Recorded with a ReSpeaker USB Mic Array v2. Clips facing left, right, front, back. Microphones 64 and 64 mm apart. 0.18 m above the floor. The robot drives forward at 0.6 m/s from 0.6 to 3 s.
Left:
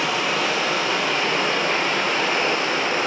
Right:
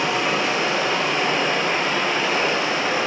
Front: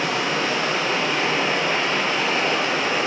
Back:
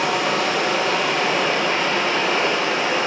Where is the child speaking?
I don't hear a child speaking.